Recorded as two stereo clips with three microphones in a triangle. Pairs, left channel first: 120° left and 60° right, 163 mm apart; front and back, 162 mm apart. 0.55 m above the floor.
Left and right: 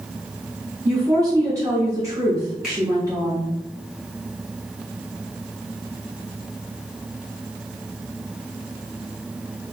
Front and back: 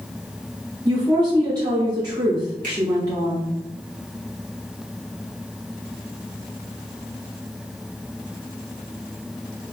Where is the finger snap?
145° right, 2.0 m.